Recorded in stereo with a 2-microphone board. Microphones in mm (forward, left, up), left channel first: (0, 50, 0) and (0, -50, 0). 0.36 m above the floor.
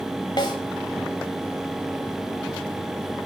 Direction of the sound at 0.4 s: 50° left (ahead or behind).